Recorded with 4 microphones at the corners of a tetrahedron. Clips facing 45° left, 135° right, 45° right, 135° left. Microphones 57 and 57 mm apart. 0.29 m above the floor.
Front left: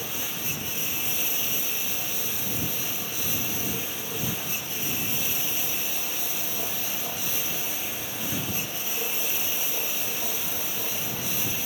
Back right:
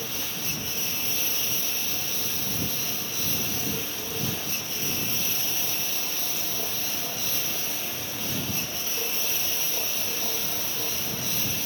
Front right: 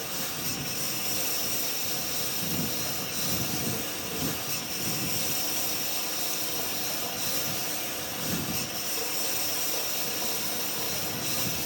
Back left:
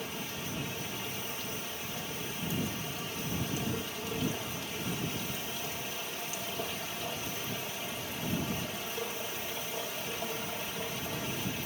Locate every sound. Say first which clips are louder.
0.0 s a lawn mower: even, front right 3 dB; 35° right